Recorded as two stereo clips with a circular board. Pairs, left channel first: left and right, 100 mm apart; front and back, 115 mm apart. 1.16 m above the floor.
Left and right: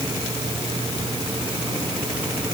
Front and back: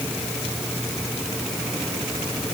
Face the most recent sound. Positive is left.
No sound to turn to.